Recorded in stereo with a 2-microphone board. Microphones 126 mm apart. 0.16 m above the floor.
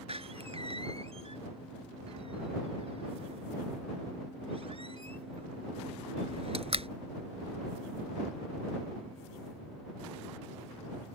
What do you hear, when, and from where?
0.1 s a door slam: 55° right (ahead or behind)